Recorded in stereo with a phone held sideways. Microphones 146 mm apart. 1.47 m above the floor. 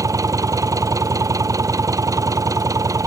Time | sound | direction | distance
0.0 | an engine running | 25° right (ahead or behind) | ?